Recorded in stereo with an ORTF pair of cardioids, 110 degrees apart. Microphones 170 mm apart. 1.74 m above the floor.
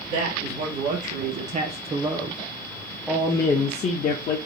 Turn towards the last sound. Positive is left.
turn(degrees=60)